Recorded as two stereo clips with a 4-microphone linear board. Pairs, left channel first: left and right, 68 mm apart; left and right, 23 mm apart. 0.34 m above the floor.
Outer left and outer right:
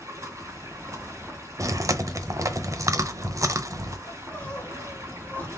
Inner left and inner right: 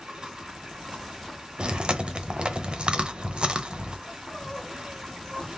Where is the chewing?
50° right (ahead or behind), 0.7 m.